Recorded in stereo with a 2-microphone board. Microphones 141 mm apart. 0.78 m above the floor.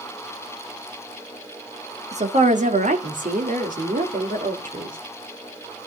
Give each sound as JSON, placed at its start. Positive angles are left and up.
{"t": 2.1, "sound": "a woman speaking", "side_deg": -55, "distance_m": 1.6}